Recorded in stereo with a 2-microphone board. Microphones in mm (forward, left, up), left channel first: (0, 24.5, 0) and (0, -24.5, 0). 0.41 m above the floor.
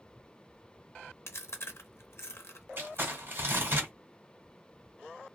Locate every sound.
1.3 s chewing: 65° left (ahead or behind), 0.6 m
2.8 s crumpling: 50° right (ahead or behind), 1.8 m